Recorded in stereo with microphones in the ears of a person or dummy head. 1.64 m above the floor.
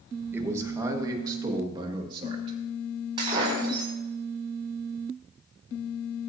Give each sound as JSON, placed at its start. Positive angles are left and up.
{"t": 0.3, "sound": "a man speaking", "side_deg": -10, "distance_m": 1.6}
{"t": 3.2, "sound": "breaking glass", "side_deg": -25, "distance_m": 4.5}